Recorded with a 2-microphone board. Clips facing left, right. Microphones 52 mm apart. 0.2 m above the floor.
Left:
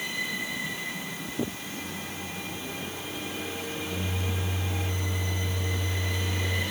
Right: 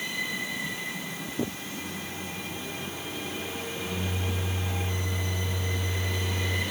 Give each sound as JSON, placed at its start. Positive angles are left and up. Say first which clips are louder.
{"t": 1.8, "sound": "a microwave", "louder": "even", "side_deg": -25, "distance_m": 1.4}